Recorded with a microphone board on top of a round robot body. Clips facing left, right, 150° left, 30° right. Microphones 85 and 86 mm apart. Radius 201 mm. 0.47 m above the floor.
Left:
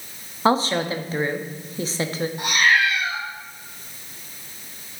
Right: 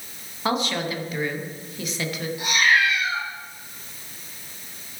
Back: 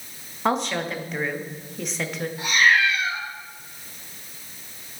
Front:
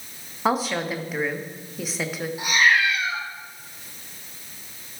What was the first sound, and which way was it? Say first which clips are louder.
A woman speaking: left 5 dB, front 1 dB; 55° left.